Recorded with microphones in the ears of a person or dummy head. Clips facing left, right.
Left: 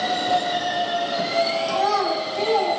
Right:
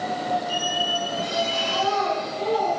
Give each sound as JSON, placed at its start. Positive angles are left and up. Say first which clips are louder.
{"t": 1.7, "sound": "a child speaking", "louder": "left 2 dB", "side_deg": 75, "distance_m": 7.0}